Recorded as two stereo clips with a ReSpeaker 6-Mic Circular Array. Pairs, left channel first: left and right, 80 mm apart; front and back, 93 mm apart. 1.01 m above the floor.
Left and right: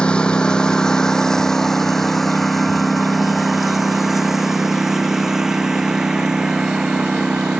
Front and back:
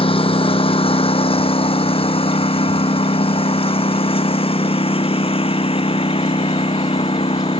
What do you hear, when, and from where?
0.0 s a lawn mower: 10° left; by 7.6 s 10° right